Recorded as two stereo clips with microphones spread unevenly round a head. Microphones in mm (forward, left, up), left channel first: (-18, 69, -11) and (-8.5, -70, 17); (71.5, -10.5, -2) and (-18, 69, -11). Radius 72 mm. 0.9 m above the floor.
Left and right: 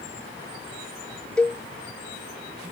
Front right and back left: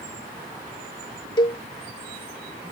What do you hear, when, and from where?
1.4 s a cowbell: 10° left